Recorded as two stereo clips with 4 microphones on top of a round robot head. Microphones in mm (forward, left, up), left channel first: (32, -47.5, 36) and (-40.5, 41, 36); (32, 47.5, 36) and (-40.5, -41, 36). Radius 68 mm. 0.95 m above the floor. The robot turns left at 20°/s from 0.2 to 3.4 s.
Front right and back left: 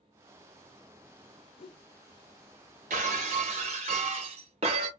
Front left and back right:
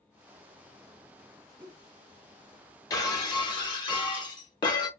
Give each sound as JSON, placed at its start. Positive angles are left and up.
{"t": 1.6, "sound": "a whoosh", "azimuth_deg": -55, "distance_m": 0.6}
{"t": 2.9, "sound": "breaking glass", "azimuth_deg": 110, "distance_m": 0.8}